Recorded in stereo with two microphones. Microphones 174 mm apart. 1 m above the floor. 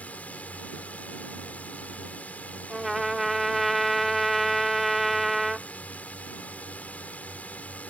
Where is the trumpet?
Centre (ahead or behind).